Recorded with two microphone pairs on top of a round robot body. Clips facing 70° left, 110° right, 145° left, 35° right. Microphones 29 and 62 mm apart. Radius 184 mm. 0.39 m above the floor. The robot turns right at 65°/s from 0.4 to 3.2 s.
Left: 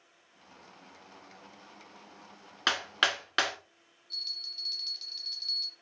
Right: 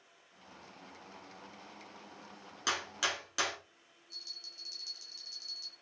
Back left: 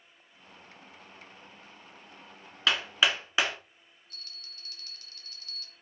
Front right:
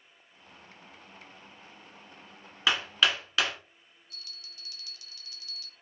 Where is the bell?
105° left, 0.7 m.